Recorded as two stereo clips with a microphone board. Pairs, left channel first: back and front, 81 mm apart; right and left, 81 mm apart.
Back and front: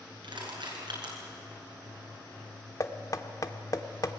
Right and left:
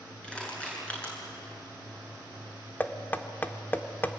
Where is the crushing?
15° right, 7.5 m.